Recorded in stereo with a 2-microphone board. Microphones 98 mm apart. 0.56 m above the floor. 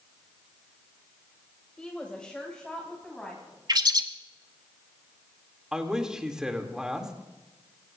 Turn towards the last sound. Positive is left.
turn(degrees=-10)  # may be behind; listen again after turning